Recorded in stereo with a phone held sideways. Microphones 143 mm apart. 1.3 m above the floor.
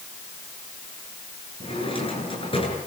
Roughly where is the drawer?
Left.